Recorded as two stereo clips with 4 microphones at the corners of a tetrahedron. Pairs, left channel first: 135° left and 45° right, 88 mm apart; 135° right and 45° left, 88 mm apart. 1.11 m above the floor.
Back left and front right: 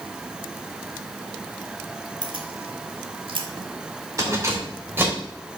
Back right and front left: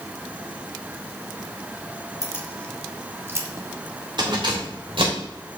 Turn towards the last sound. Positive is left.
turn(degrees=25)